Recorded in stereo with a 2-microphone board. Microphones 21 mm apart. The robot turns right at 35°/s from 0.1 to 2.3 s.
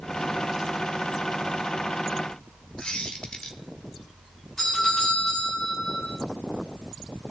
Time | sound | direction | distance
2.8 | a squeak | 65° left (ahead or behind) | 1.9 m
4.6 | a doorbell | 20° left (ahead or behind) | 9 m